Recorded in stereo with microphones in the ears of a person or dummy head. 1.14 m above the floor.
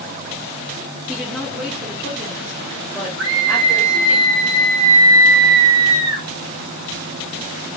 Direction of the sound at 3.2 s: 75° right (ahead or behind).